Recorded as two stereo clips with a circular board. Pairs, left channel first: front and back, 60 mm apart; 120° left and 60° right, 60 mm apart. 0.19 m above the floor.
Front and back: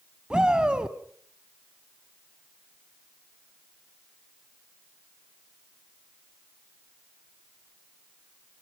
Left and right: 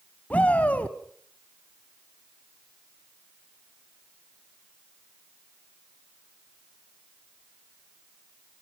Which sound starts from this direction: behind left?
A shout, at 0.3 s.